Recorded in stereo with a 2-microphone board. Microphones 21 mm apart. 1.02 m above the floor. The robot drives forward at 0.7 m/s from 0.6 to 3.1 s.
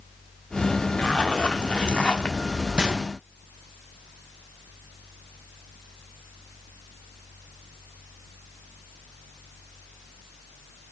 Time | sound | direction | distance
1.0 | a zipper | 45° left (ahead or behind) | 1.1 m
2.8 | a gunshot | 40° right (ahead or behind) | 1.2 m